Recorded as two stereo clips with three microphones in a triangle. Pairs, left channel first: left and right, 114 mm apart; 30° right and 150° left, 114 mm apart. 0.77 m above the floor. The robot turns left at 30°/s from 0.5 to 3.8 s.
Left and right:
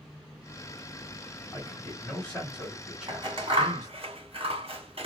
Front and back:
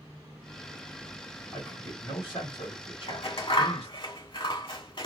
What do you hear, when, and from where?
1.5 s a man speaking: 40° left, 2 m; by 4.0 s 25° right, 2 m
3.1 s scissors: 45° right, 1.7 m; by 5.1 s 65° right, 1.7 m